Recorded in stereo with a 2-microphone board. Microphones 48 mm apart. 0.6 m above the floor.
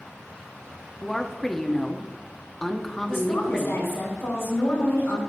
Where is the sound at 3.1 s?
70° left (ahead or behind), 3 m.